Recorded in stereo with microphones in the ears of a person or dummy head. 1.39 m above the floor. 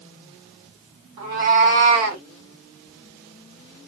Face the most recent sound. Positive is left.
turn(degrees=-30)  # may be behind; listen again after turning